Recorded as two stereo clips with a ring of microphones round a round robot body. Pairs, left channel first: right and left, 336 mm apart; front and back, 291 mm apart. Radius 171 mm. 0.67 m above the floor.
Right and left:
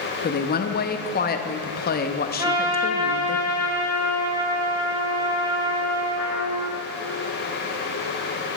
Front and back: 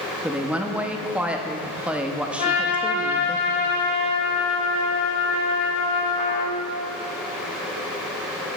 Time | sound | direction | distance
0.2 | a woman speaking | 100° right | 0.6 m
2.4 | a trumpet | 10° left | 2.5 m